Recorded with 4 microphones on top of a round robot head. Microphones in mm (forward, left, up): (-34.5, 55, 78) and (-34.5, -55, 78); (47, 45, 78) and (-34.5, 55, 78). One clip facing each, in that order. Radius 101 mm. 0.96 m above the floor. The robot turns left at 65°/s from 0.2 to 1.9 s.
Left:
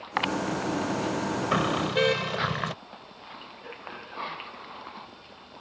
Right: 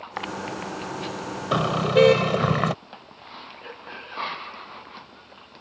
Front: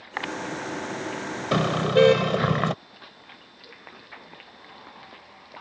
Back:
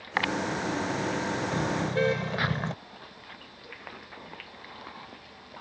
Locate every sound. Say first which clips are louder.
1.5 s a car horn: right 8 dB, front 11 dB; 15° right; by 2.8 s 40° right